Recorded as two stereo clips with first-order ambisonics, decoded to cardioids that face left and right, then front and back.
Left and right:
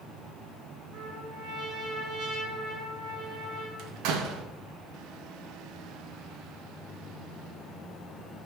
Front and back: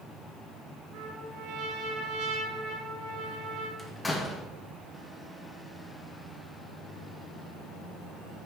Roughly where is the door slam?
Right.